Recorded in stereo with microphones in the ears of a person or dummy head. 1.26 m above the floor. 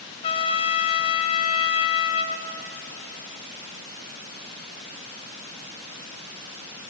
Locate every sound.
0.2 s a trumpet: 30° left (ahead or behind), 0.5 m